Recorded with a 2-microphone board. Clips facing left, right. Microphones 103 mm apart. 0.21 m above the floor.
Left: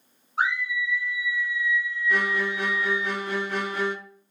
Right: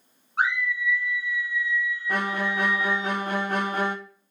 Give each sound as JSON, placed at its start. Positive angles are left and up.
{"t": 0.4, "sound": "a scream", "side_deg": -60, "distance_m": 2.5}
{"t": 2.1, "sound": "a violin", "side_deg": -45, "distance_m": 0.5}